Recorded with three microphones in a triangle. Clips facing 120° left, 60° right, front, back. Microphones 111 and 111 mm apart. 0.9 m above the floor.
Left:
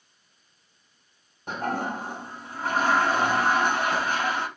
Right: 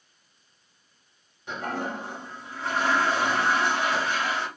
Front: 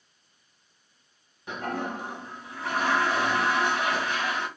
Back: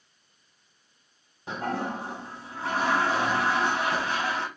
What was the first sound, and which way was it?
A toilet flushing, 135° left.